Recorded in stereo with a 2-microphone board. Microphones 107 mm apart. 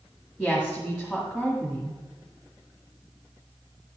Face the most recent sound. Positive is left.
turn(degrees=10)  # may be behind; listen again after turning